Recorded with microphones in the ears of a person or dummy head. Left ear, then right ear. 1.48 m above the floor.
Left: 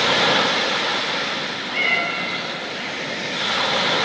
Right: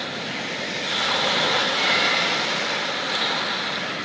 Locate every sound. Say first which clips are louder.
1.7 s a cat meowing: left 1 dB; 55° left (ahead or behind), 7 m